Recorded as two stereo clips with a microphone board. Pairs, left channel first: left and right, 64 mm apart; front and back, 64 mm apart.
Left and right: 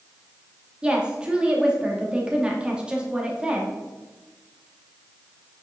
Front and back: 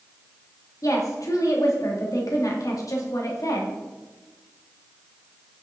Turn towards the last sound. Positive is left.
turn(degrees=-15)